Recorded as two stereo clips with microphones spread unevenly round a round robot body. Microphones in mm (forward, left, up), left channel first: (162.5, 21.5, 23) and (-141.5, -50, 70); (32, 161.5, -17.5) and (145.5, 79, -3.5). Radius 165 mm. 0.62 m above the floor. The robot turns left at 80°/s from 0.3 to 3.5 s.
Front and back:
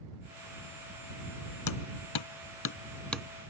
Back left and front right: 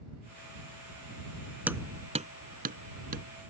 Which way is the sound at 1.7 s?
45° left.